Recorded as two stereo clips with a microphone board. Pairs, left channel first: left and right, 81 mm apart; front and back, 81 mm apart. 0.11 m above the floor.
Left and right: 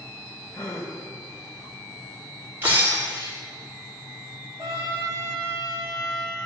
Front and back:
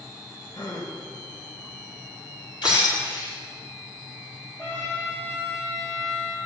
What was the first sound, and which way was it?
A gasp, 40° left.